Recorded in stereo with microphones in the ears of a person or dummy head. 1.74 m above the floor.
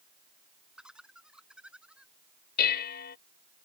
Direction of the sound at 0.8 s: 10° right (ahead or behind).